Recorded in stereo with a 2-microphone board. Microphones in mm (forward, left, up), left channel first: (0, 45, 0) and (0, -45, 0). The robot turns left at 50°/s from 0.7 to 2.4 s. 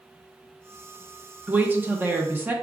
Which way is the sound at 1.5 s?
20° right (ahead or behind).